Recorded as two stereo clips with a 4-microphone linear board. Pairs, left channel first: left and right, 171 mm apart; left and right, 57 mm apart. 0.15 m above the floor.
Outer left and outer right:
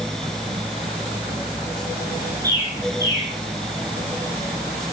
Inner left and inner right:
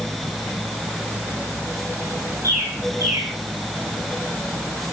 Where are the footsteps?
No footsteps in this recording.